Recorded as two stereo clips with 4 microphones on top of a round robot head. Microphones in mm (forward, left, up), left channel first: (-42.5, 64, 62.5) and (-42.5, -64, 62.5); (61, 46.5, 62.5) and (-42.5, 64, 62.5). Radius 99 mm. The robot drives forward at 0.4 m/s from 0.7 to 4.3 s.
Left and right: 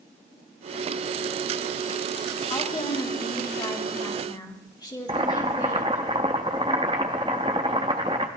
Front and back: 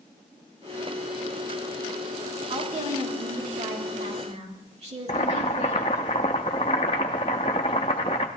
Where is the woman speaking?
145° left, 3 m; by 6.1 s 150° left, 3.5 m.